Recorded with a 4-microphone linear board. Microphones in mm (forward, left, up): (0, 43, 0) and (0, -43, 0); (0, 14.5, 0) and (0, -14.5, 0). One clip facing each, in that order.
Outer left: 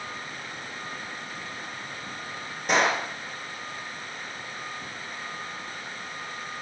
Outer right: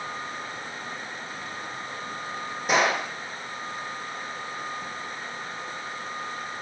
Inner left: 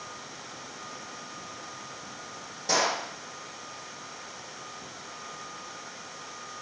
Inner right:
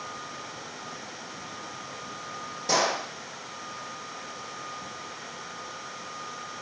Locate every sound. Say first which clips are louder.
2.7 s a gunshot: even, inner right 1 dB; centre (ahead or behind), 5 m